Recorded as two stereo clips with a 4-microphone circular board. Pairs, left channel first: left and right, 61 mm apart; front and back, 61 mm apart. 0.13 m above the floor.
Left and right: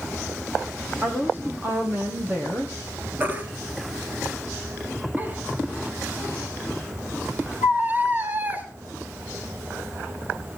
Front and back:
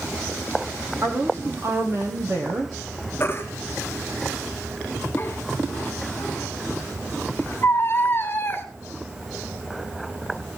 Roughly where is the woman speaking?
Behind right.